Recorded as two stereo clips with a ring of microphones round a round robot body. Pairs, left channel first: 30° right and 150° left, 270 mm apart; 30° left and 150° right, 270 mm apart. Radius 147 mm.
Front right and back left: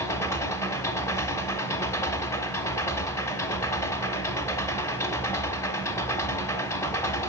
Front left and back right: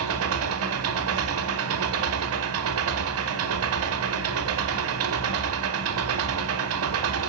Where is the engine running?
110° right, 1.0 m.